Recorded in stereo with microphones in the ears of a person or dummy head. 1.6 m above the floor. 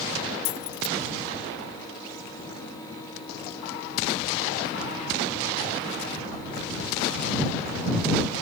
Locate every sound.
0.5 s keys jangling: 40° left (ahead or behind)